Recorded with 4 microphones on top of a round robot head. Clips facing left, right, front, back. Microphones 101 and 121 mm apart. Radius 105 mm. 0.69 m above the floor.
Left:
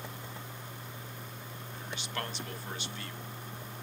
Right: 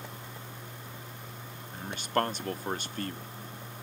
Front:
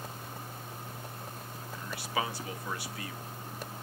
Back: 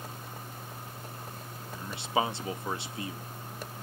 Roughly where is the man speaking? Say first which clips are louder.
Right 10 dB, back 5 dB; behind right.